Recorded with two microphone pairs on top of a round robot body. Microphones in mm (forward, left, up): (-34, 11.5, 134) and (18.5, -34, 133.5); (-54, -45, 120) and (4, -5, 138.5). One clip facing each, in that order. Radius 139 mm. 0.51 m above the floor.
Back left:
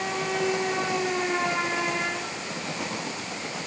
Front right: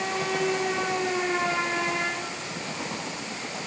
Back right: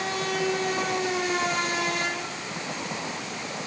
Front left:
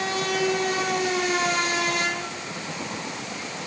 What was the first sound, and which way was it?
Only background noise.